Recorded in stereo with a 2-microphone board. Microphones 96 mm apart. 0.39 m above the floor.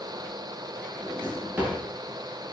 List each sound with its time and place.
1.0 s a drawer: 20° right (ahead or behind), 8.5 m